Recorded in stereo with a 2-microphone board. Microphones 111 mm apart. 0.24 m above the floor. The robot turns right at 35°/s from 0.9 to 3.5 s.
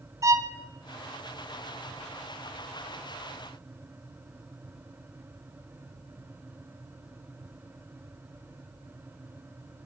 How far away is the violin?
About 1.3 m.